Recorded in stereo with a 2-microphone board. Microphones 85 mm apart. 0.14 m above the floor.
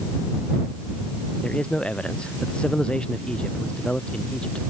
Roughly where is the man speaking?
Centre.